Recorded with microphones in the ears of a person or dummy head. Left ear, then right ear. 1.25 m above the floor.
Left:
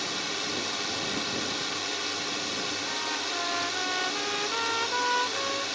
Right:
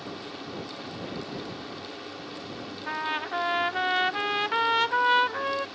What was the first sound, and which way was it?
A drone, 70° left (ahead or behind).